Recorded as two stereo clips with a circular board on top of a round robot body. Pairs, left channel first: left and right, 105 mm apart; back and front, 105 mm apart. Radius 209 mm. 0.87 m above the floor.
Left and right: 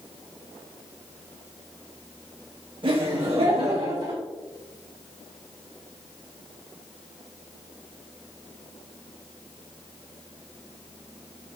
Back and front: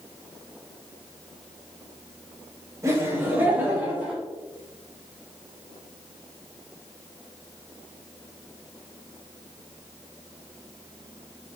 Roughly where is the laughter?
Ahead right.